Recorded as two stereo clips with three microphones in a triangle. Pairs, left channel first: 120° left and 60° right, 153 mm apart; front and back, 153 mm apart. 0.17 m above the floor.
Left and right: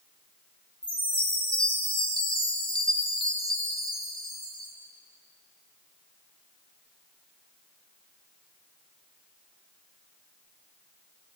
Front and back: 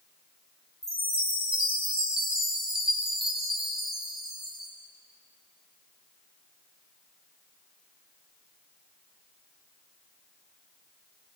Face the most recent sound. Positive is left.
turn(degrees=175)